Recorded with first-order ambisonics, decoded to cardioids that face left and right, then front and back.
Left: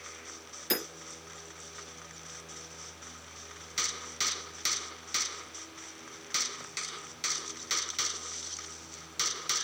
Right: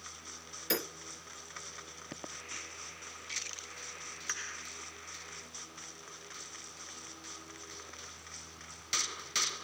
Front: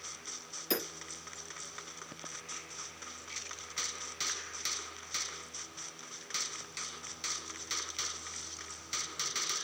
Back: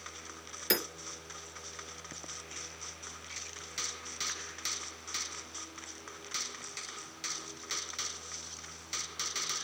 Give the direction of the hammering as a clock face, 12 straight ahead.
6 o'clock.